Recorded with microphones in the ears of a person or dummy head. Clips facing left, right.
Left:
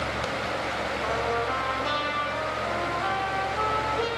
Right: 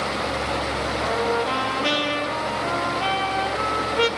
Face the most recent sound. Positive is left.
turn(degrees=-80)